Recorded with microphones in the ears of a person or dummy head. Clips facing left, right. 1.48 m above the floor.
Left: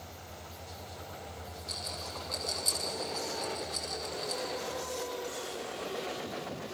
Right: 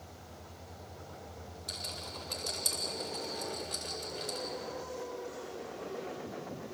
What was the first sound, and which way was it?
A rattle, 35° right (ahead or behind).